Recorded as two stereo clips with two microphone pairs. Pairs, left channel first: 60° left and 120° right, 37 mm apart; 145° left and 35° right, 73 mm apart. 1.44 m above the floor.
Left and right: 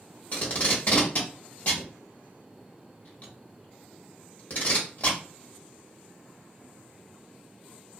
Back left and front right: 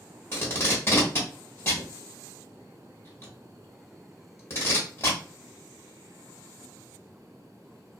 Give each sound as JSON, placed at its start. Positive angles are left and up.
{"t": 0.3, "sound": "tape being pulled", "azimuth_deg": 100, "distance_m": 1.1}